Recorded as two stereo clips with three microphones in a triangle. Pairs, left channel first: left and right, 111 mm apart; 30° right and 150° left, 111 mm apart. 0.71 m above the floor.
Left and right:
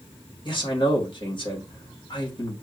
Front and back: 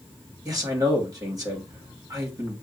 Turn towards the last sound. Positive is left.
turn(degrees=105)